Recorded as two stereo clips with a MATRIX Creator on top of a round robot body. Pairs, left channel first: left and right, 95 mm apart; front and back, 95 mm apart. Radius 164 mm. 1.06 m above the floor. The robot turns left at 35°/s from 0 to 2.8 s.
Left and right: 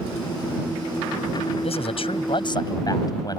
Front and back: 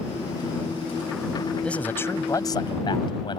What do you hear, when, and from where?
1.6 s a man speaking: 80° left; by 3.4 s 40° left